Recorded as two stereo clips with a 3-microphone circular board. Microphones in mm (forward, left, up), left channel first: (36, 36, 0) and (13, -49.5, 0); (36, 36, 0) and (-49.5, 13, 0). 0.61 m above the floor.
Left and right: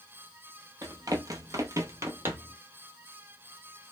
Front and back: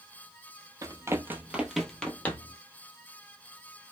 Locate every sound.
0.8 s running footsteps: 135° right, 0.8 m; by 2.6 s 40° right, 0.9 m